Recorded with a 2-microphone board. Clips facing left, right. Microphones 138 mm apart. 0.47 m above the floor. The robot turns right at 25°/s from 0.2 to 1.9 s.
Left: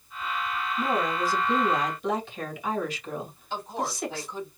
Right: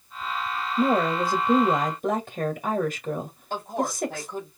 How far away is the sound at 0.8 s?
About 1.7 m.